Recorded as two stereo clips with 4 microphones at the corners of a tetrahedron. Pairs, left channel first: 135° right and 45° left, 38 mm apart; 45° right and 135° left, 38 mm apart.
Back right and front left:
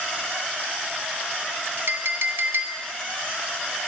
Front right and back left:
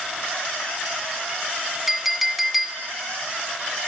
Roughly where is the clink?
Ahead left.